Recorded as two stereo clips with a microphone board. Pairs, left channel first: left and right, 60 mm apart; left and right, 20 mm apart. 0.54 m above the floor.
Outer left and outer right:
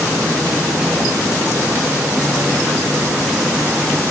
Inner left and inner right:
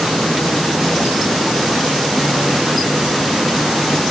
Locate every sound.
Only background noise.